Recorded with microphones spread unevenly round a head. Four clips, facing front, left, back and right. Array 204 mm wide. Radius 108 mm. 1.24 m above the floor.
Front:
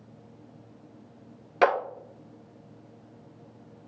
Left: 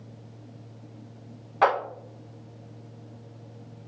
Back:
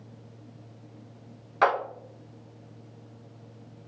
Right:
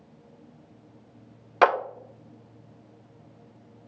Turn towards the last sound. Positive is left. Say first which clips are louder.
# right 2 dB, front 1 dB
turn(degrees=-50)